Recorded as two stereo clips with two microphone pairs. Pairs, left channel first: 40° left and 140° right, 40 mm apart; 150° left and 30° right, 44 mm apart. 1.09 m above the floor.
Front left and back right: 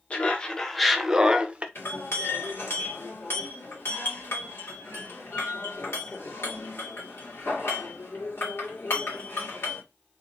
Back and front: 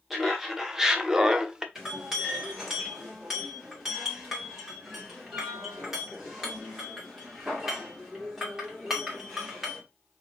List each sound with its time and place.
0.1 s laughter: 55° left, 0.9 m; by 1.6 s 100° right, 0.9 m
1.8 s a clink: 50° left, 1.8 m